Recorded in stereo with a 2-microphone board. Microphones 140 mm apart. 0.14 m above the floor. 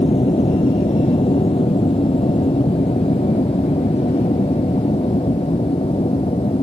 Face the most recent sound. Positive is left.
turn(degrees=40)  # may be behind; listen again after turning